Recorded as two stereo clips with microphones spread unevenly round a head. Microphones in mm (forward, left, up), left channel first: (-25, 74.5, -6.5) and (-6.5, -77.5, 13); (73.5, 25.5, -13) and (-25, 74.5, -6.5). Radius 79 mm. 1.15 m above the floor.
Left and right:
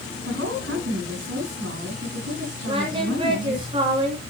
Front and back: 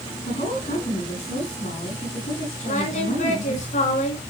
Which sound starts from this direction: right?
A woman speaking, at 0.2 s.